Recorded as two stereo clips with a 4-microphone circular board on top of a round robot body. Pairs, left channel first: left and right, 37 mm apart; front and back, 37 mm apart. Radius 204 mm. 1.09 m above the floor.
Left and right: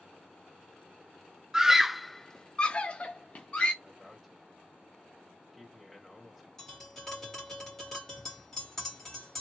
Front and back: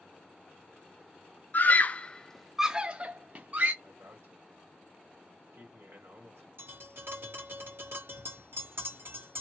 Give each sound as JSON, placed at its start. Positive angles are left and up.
{"t": 1.5, "sound": "a scream", "azimuth_deg": -20, "distance_m": 0.8}
{"t": 3.8, "sound": "a man speaking", "azimuth_deg": 180, "distance_m": 2.0}
{"t": 6.6, "sound": "tapping", "azimuth_deg": 165, "distance_m": 2.5}